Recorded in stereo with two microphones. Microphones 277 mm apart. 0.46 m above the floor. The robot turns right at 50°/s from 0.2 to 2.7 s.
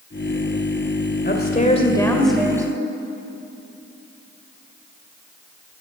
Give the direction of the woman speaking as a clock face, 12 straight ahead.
8 o'clock.